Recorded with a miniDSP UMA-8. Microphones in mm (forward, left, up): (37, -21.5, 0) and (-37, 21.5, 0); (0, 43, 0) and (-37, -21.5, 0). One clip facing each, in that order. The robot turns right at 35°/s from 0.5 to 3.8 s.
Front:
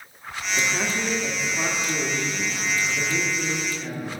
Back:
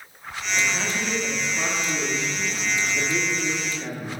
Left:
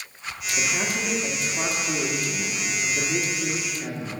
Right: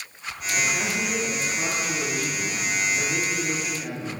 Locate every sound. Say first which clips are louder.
0.6 s a man speaking: even, right 1 dB; 15° left, 1.3 m; by 4.1 s 125° left, 1.3 m